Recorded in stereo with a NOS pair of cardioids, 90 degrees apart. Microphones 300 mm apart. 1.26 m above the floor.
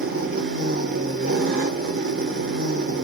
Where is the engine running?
40° right, 2.5 m.